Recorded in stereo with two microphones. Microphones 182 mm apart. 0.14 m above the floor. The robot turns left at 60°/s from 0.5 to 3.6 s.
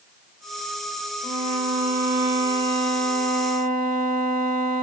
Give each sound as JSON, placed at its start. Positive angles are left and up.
{"t": 1.2, "sound": "a violin", "azimuth_deg": 45, "distance_m": 2.0}